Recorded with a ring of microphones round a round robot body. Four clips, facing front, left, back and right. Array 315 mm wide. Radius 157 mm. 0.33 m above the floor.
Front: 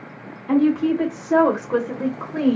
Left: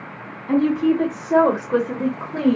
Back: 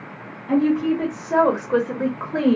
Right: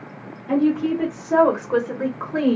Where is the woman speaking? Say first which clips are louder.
Left 2 dB, front 1 dB; 30° left, 1.2 m; by 2.6 s 140° right, 1.1 m.